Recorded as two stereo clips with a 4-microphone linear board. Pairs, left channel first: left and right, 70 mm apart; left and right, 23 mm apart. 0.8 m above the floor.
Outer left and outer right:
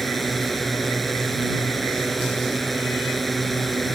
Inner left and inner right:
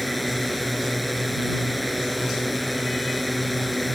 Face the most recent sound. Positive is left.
turn(degrees=0)  # may be behind; listen again after turning